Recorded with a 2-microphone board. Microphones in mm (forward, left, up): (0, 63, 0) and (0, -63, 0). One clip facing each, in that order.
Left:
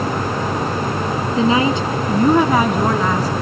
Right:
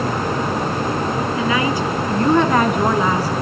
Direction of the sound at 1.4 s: 30° left (ahead or behind).